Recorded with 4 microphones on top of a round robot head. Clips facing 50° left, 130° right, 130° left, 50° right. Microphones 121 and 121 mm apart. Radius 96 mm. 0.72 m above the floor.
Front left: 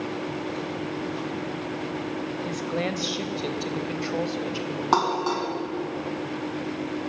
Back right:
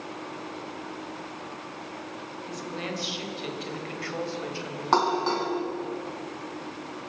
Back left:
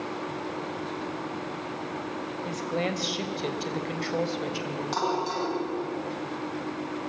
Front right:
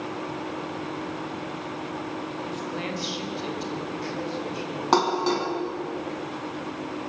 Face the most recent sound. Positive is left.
turn(degrees=-25)